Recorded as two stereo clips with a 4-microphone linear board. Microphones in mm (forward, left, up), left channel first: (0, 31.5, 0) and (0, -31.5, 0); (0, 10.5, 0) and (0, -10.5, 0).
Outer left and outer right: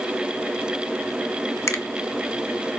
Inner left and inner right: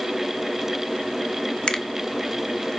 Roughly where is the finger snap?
Left.